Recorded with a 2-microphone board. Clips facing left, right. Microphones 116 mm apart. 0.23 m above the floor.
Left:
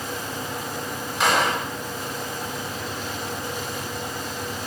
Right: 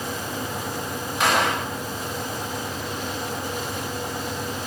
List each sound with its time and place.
1.2 s a gunshot: centre (ahead or behind), 1.2 m